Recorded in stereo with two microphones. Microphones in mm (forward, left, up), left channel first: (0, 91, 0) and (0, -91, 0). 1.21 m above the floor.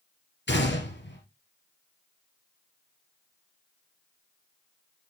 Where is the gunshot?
75° left (ahead or behind), 3.5 m.